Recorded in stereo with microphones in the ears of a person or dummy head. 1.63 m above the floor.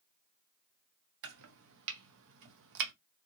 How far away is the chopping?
About 0.7 m.